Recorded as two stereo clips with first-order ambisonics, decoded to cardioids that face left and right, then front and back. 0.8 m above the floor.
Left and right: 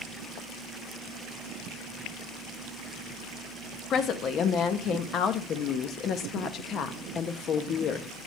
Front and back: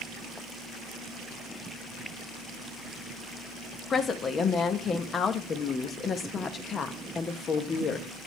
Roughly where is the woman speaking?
Ahead left.